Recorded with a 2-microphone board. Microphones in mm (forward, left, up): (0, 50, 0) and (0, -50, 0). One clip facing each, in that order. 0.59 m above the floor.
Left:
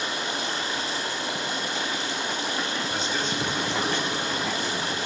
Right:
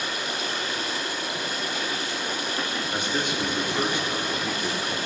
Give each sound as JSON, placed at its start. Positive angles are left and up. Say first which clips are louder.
{"t": 0.0, "sound": "running water", "louder": "left 1 dB", "side_deg": 25, "distance_m": 1.9}
{"t": 2.9, "sound": "a man speaking", "louder": "right 3 dB", "side_deg": -15, "distance_m": 1.4}